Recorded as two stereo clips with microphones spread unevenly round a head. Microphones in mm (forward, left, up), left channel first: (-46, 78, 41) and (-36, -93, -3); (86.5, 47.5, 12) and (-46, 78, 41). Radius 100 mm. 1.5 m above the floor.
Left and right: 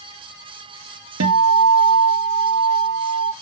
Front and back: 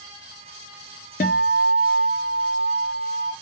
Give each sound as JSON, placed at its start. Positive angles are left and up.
{"t": 1.2, "sound": "a guitar", "azimuth_deg": -65, "distance_m": 0.6}